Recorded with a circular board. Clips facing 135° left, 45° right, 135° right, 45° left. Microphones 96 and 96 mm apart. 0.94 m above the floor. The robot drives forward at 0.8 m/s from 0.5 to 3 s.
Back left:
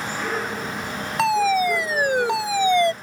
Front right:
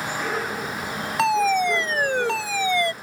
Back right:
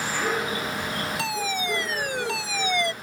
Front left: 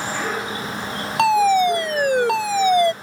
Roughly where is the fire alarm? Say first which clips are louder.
Back left 1 dB, front left 19 dB; ahead left.